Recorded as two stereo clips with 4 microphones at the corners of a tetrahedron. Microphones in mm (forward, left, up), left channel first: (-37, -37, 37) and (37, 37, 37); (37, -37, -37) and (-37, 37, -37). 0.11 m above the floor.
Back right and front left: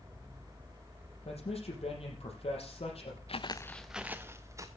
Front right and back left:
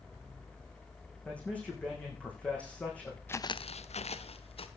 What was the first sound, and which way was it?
A man speaking, 120° right.